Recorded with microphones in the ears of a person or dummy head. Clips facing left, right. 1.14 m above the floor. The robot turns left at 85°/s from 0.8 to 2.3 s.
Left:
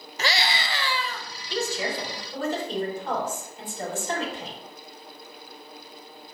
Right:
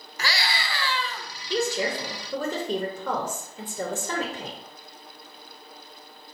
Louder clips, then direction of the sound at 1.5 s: Right 3 dB; 40° right.